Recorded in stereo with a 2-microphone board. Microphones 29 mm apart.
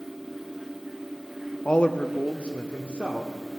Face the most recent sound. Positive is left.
turn(degrees=65)  # may be behind; listen again after turning